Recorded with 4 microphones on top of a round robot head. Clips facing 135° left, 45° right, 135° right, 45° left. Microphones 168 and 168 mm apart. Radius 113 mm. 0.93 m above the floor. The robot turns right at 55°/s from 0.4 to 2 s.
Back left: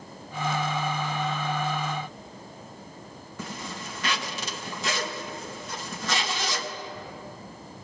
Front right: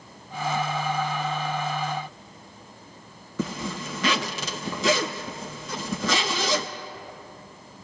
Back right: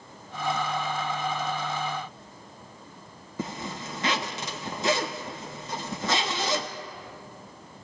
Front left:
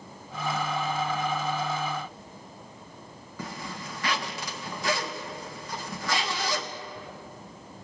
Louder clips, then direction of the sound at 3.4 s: Front right 8 dB, back right 4 dB; 70° right.